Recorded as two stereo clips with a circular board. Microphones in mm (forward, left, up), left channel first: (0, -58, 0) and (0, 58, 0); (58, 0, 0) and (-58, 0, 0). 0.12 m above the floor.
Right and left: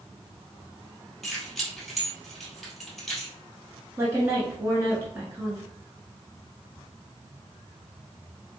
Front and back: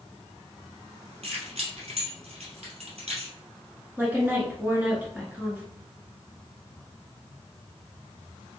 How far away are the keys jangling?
About 1.7 m.